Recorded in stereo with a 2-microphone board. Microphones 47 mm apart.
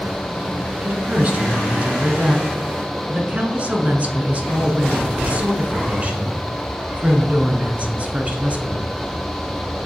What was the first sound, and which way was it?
A woman speaking, 30° right (ahead or behind).